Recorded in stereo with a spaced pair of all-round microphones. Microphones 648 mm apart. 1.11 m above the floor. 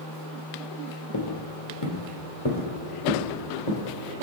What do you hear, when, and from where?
1.1 s footsteps: 35° left (ahead or behind), 1.3 m; by 3.9 s 45° left (ahead or behind), 2.5 m